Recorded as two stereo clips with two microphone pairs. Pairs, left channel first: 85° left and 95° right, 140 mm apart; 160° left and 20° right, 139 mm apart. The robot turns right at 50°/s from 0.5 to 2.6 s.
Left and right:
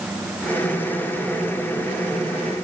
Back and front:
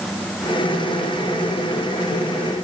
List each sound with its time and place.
Only background noise.